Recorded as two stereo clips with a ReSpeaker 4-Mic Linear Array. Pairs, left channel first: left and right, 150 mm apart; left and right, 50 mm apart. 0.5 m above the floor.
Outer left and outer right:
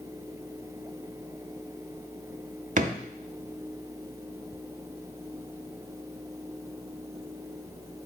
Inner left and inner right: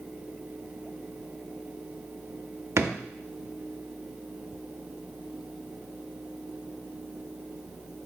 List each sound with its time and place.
2.8 s a drawer: 60° right (ahead or behind), 0.6 m